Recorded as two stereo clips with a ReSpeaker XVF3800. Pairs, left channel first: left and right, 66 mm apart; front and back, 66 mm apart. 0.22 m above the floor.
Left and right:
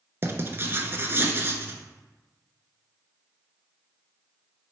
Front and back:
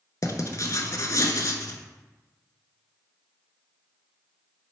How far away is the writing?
About 0.5 m.